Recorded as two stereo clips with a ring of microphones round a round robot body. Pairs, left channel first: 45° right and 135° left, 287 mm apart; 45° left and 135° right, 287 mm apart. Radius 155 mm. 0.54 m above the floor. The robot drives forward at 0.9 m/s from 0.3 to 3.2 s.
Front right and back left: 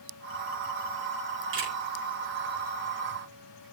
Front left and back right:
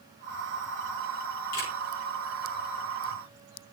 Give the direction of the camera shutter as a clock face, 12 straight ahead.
9 o'clock.